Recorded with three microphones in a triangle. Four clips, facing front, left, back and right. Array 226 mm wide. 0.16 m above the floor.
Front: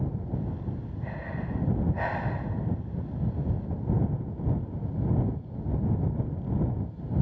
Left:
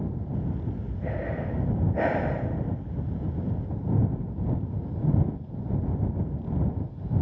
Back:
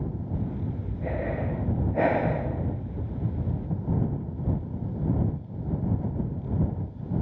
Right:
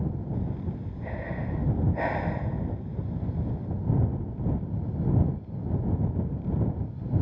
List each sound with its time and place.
0.3 s breathing: 155° left